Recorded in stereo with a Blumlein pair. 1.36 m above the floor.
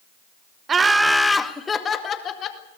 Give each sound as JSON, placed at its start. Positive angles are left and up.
{"t": 0.7, "sound": "laughter", "azimuth_deg": -20, "distance_m": 1.1}